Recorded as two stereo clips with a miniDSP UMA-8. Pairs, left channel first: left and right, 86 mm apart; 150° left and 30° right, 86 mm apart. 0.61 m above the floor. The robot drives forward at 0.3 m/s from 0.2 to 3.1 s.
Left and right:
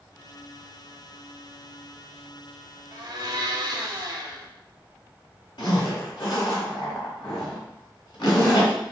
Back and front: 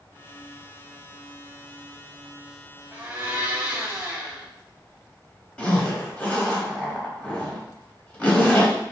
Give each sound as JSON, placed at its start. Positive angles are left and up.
{"t": 2.9, "sound": "a blender", "azimuth_deg": -90, "distance_m": 0.7}
{"t": 5.6, "sound": "a zipper", "azimuth_deg": 75, "distance_m": 0.9}